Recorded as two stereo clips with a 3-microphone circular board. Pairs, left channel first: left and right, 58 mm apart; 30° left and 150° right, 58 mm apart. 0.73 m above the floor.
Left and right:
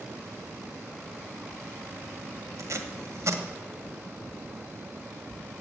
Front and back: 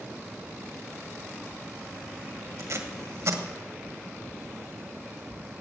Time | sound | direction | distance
2.6 | tape being pulled | 120° right | 1.6 m